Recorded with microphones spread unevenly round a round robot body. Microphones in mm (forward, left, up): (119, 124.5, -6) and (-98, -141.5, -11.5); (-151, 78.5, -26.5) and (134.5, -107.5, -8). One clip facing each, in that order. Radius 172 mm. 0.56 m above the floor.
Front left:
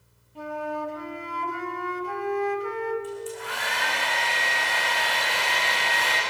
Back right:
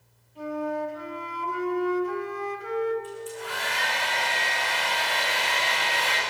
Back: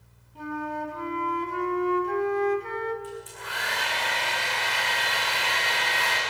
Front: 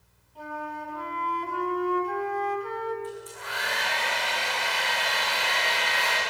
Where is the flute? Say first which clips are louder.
Back right 3 dB, back 6 dB; 85° left, 3 m.